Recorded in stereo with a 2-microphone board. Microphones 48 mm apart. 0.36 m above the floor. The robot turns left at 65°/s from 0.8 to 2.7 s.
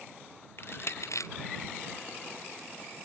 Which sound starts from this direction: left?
Crushing, at 0.6 s.